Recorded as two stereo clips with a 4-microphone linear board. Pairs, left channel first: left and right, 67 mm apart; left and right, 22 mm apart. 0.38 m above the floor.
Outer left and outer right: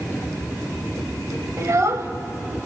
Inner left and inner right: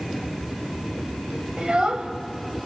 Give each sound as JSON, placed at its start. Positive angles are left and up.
{"t": 1.6, "sound": "a child speaking", "side_deg": -45, "distance_m": 1.3}